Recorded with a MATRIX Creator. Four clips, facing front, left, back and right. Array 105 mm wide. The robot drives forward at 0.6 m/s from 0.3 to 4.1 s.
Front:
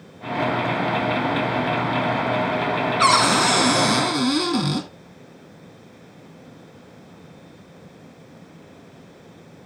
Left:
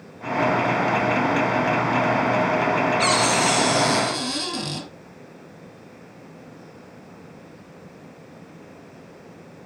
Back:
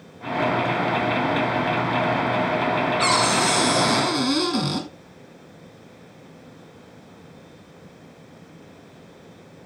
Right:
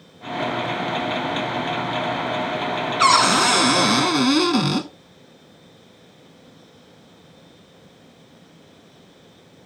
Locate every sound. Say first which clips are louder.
3.0 s a cupboard door: right 4 dB, front 7 dB; 60° right, 1.4 m; by 4.9 s 90° right, 1.2 m